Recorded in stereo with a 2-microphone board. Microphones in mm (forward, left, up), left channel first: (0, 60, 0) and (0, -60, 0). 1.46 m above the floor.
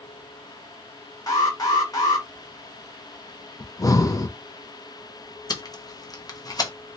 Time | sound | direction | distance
1.3 | an alarm | 30° left (ahead or behind) | 1.2 m
3.6 | breathing | 30° left (ahead or behind) | 0.5 m
5.5 | tape being pulled | 35° left (ahead or behind) | 0.7 m